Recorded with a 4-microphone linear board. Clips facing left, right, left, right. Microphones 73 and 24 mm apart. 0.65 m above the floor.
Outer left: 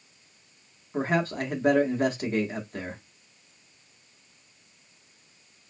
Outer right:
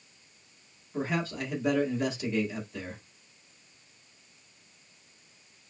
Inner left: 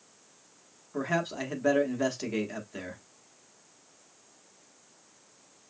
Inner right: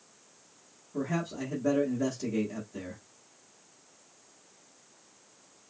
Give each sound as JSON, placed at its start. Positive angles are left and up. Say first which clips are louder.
{"t": 0.9, "sound": "a man speaking", "louder": "outer left 5 dB, inner left 3 dB", "side_deg": 50, "distance_m": 1.3}